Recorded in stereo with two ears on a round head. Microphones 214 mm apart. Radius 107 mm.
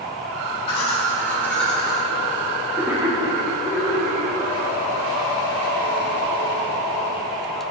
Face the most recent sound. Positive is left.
turn(degrees=-15)  # may be behind; listen again after turning